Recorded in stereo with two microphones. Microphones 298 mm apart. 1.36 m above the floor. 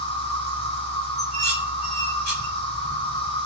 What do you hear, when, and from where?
0.0 s an insect: 20° left (ahead or behind), 5 m
1.2 s dishes clattering: 35° right (ahead or behind), 4.5 m